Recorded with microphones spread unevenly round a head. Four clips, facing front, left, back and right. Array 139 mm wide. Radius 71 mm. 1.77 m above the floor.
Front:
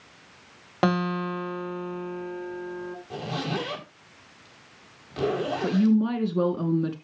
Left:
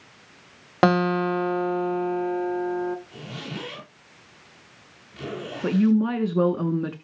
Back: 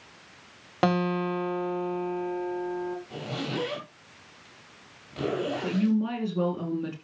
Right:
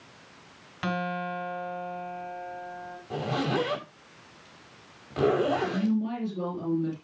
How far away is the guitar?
About 1.7 m.